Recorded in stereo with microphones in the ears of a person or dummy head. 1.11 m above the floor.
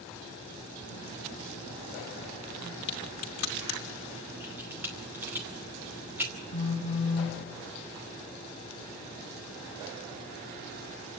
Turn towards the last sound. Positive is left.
turn(degrees=40)  # may be behind; listen again after turning